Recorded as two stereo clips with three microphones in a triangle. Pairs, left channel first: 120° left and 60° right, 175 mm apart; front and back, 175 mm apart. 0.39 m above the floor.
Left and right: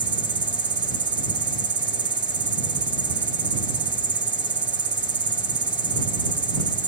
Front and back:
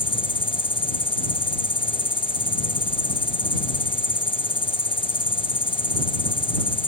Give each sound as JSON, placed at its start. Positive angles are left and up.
{"t": 0.0, "sound": "an insect", "azimuth_deg": -65}